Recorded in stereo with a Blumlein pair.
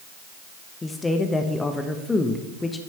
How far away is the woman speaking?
About 1.1 m.